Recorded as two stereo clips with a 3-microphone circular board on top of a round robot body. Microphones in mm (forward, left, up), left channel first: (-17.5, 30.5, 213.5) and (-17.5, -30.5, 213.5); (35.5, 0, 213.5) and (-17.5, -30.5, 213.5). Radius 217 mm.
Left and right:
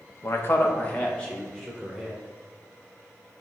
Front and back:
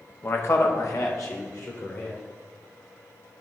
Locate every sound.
0.2 s a man speaking: 70° left, 1.4 m; by 2.2 s straight ahead, 3 m